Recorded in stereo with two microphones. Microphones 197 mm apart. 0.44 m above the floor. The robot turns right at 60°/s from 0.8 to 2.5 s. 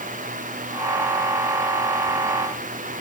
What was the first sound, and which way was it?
Only background noise.